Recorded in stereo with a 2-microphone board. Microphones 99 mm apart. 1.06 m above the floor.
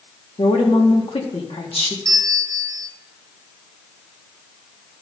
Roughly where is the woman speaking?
Left.